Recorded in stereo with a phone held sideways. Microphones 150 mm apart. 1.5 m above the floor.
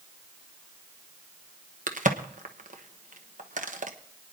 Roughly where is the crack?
Right.